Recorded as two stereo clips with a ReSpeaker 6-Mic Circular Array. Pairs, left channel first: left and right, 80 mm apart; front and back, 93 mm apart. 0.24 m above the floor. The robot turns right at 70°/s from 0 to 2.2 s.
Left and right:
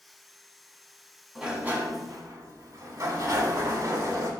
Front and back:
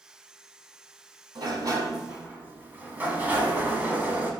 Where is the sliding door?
175° right, 0.9 m; by 4.3 s 115° right, 0.9 m.